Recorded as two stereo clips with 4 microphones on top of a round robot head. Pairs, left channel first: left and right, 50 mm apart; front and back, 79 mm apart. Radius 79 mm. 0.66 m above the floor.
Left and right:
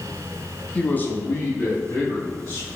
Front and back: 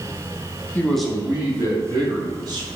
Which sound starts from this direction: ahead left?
A man speaking, at 0.8 s.